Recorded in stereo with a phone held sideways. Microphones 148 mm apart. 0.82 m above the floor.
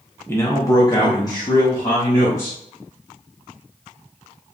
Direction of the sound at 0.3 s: 15° left (ahead or behind).